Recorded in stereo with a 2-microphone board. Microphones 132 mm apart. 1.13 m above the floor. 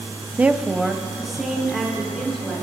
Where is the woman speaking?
15° right (ahead or behind), 0.5 m; by 2.6 s centre (ahead or behind), 4 m.